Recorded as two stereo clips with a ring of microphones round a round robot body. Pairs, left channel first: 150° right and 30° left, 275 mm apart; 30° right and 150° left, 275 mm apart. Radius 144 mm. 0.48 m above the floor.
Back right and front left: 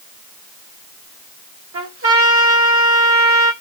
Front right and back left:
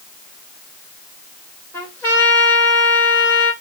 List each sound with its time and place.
1.7 s a trumpet: 50° left, 1.9 m